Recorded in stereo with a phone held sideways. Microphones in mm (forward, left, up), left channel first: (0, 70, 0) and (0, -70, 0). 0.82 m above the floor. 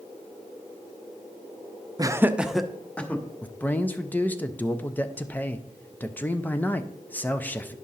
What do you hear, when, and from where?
2.0 s laughter: 25° right (ahead or behind), 0.5 m; by 3.2 s 10° left (ahead or behind), 1.1 m
3.4 s a man speaking: 15° left (ahead or behind), 0.5 m